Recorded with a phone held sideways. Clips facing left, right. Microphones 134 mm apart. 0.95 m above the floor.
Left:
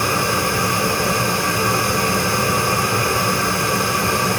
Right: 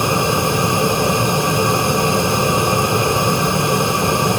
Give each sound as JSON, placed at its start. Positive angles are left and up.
{"t": 0.0, "sound": "a fan", "side_deg": -20, "distance_m": 0.7}